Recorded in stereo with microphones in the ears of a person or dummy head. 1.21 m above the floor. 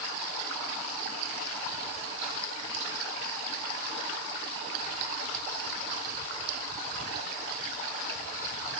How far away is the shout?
I don't hear a shout.